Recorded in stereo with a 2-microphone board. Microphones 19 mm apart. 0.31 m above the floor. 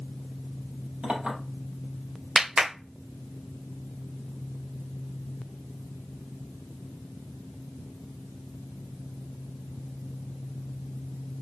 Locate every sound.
1.0 s a clink: 80° right, 4.5 m
2.4 s a clap: 30° right (ahead or behind), 0.8 m